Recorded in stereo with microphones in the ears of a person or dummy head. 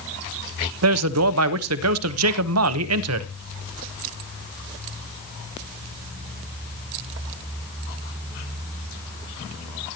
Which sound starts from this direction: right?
A man speaking, at 0.8 s.